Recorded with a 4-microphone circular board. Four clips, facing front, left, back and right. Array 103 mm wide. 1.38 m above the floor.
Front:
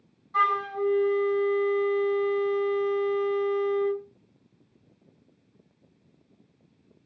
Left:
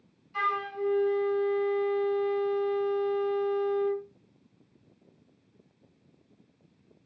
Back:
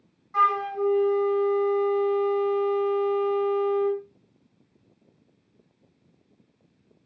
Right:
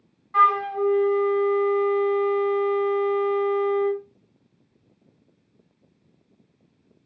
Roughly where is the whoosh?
No whoosh in this recording.